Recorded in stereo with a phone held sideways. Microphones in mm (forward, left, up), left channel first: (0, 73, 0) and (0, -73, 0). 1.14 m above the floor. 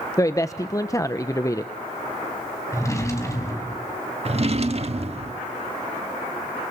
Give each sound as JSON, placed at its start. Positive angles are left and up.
{"t": 0.2, "sound": "a man speaking", "side_deg": 20, "distance_m": 0.9}
{"t": 2.7, "sound": "a drawer", "side_deg": 20, "distance_m": 4.0}
{"t": 4.2, "sound": "a drawer", "side_deg": -45, "distance_m": 1.4}